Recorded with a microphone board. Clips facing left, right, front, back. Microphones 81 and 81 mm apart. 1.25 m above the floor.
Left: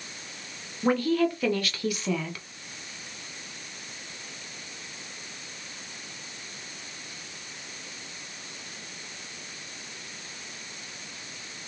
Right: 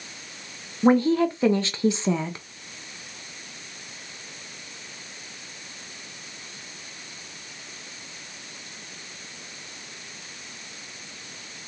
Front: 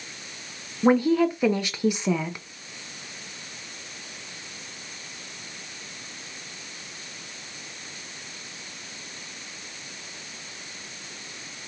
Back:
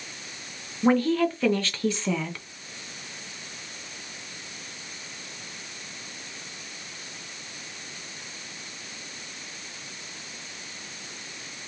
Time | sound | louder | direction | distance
0.8 | a woman speaking | right 5 dB, front 2 dB | 60° right | 0.6 m